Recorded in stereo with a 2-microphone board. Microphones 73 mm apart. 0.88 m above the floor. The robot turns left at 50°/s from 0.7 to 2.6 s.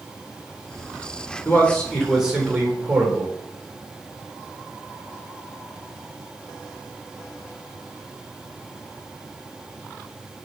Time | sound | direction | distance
1.4 | a man speaking | 30° left | 3 m